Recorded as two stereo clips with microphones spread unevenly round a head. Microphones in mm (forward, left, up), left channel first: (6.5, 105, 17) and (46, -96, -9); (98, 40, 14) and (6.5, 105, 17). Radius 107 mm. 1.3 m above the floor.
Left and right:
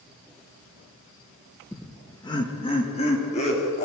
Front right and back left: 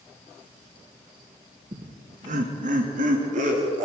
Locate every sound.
1.7 s laughter: 170° right, 1.2 m; by 3.9 s 160° left, 4 m